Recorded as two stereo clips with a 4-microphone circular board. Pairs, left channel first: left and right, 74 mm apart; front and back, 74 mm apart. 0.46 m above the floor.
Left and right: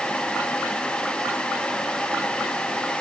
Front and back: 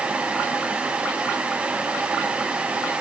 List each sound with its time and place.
Only background noise.